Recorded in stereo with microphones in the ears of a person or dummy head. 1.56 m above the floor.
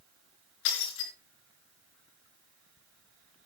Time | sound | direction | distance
0.7 | breaking glass | 70° left (ahead or behind) | 4.5 m